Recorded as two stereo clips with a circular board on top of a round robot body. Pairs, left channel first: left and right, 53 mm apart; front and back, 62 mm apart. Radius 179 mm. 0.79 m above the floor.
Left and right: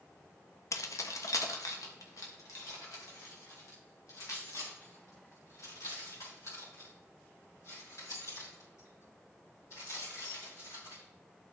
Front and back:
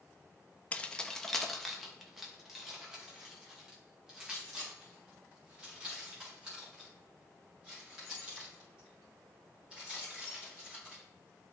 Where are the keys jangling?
70° left, 0.7 m; by 11.0 s 105° left, 11 m.